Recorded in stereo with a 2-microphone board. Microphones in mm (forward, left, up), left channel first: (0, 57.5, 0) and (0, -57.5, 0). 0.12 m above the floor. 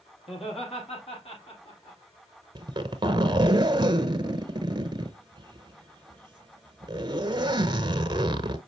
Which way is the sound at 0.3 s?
60° left (ahead or behind).